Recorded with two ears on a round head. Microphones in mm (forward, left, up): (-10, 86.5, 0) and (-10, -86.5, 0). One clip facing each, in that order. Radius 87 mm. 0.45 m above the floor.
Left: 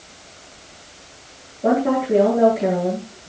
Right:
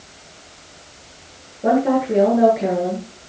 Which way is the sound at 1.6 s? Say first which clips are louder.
Right 1 dB; 10° right (ahead or behind).